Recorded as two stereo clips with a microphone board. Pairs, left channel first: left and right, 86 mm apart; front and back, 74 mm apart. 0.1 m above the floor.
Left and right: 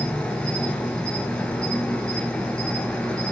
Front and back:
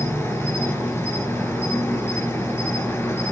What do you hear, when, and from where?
0.0 s an insect: 20° left, 2.5 m